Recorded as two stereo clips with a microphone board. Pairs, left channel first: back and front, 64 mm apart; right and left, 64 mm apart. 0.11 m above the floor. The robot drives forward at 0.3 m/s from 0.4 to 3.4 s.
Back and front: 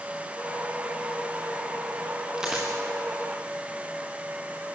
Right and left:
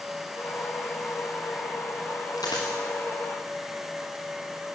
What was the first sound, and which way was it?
A dropped coin, 80° right.